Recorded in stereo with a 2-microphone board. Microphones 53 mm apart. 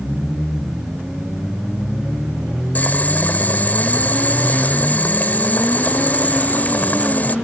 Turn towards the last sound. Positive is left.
turn(degrees=35)  # may be behind; listen again after turning